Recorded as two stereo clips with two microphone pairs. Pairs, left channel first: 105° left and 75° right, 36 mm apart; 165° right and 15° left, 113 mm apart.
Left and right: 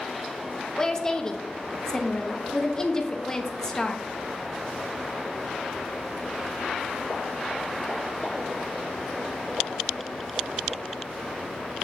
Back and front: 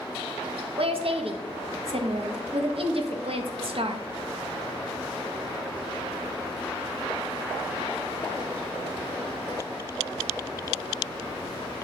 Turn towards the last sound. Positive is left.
turn(degrees=30)